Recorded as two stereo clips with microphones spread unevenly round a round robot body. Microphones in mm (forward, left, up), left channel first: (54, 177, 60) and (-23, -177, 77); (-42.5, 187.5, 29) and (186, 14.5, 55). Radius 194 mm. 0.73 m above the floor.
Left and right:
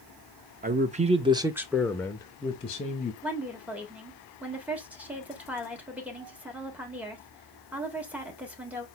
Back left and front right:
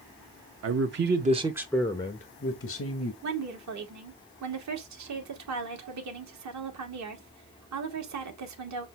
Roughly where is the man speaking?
Ahead right.